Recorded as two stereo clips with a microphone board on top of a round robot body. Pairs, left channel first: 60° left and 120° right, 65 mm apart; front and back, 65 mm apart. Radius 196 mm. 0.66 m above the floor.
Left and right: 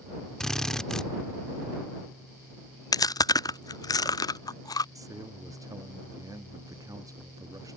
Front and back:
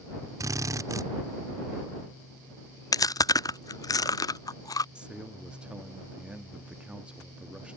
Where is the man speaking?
105° right.